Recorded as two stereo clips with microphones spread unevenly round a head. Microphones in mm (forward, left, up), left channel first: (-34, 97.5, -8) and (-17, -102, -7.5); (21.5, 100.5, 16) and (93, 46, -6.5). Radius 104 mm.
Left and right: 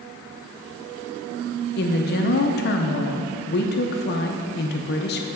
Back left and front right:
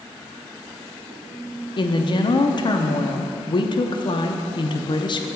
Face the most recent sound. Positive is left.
turn(degrees=105)